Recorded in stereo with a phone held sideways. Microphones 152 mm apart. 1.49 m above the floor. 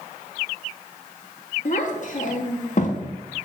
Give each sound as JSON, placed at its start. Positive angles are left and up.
{"t": 1.6, "sound": "a child speaking", "side_deg": 55, "distance_m": 1.5}